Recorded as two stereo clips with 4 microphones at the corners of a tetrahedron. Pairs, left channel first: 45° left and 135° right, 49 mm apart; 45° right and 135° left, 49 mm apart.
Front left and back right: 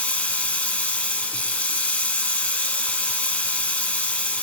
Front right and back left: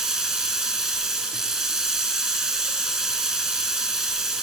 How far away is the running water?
About 0.8 m.